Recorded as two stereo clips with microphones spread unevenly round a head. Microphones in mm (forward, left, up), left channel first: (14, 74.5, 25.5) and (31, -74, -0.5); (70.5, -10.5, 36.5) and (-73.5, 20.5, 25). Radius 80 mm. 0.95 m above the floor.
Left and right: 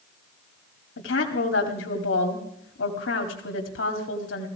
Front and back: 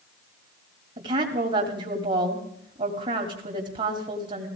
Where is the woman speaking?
115° left, 2 m.